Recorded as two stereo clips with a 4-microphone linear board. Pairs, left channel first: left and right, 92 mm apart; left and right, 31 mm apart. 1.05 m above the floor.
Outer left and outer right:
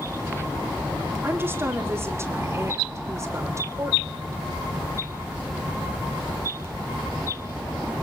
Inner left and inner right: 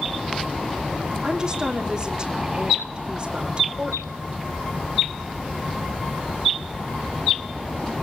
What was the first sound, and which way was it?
A woman speaking, 25° right (ahead or behind).